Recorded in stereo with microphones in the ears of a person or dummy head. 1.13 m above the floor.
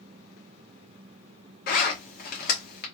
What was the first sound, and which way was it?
A zipper, 45° left (ahead or behind).